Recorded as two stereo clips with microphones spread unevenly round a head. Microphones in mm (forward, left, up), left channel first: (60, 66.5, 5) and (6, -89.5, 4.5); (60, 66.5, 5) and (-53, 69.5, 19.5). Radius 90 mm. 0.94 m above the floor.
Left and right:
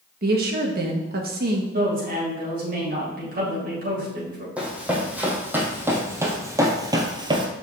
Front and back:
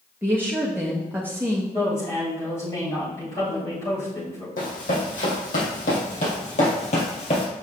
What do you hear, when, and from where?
0.2 s a woman speaking: 105° right, 1.5 m
1.7 s a woman speaking: 75° right, 4 m
4.6 s running footsteps: 25° right, 3 m; by 7.5 s 55° right, 1.4 m